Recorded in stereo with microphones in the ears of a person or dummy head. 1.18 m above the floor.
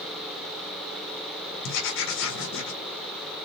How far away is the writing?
About 1.4 m.